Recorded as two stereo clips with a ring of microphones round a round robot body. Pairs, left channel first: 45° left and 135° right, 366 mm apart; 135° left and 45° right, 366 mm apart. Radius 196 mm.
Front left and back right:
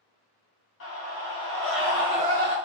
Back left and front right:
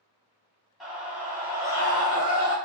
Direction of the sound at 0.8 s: 45° left.